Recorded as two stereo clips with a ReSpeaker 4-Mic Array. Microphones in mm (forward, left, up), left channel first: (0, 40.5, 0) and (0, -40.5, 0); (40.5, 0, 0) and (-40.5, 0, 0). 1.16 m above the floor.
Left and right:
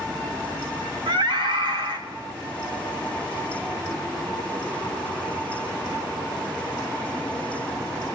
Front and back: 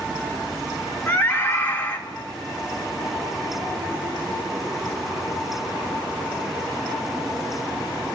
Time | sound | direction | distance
1.1 | a scream | 70° right | 2.5 m